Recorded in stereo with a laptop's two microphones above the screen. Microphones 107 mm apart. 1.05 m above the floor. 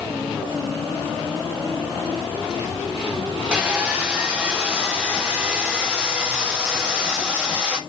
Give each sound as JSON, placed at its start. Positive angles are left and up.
{"t": 3.5, "sound": "sawing", "side_deg": -10, "distance_m": 1.8}